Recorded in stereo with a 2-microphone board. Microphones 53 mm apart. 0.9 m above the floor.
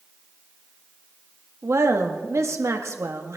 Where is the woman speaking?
65° right (ahead or behind), 1.4 m.